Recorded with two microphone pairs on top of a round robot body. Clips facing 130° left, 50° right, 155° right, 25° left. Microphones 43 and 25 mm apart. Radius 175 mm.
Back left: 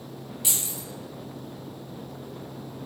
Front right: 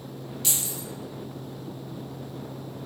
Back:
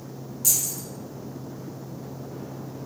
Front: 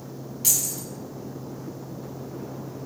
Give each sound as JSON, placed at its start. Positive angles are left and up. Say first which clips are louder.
{"t": 0.4, "sound": "keys jangling", "louder": "even, even", "azimuth_deg": 60, "distance_m": 1.0}